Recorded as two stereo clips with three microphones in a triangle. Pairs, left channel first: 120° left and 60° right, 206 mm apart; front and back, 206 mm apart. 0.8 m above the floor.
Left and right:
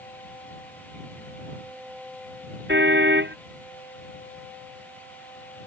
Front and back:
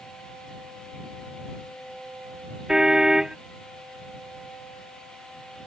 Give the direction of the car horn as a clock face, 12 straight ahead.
3 o'clock.